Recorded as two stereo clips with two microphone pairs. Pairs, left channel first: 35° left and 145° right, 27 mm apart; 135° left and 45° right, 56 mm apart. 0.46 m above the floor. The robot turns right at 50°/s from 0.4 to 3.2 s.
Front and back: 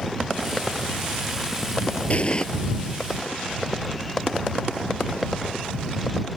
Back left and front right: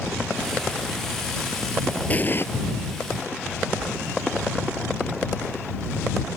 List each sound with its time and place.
2.1 s an explosion: 75° left; by 2.5 s 95° left